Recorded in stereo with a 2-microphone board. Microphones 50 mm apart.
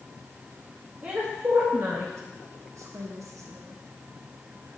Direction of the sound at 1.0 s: 30° right (ahead or behind).